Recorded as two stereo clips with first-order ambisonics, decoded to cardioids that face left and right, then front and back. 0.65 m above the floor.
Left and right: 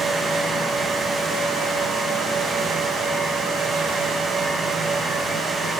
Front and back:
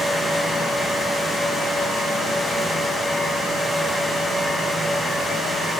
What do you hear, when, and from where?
Only background noise.